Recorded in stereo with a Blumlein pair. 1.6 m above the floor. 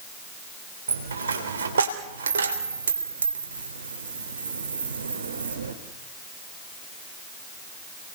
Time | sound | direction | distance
0.9 | a dropped coin | 70° right | 3 m